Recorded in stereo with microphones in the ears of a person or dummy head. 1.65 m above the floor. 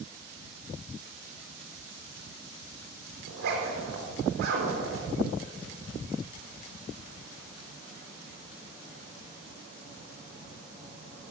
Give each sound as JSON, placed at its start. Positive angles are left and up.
{"t": 3.3, "sound": "a zipper", "side_deg": -60, "distance_m": 4.5}